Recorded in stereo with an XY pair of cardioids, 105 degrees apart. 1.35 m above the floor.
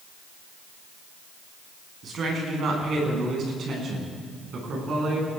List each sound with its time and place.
2.0 s a woman speaking: 55° right, 9.5 m